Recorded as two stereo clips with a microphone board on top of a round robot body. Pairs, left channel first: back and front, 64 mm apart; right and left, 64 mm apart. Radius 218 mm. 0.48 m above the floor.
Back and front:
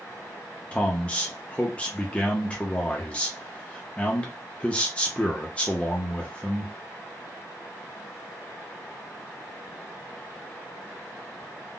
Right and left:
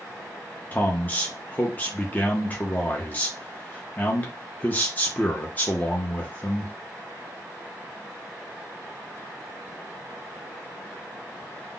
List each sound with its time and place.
0.7 s a man speaking: 125° right, 0.8 m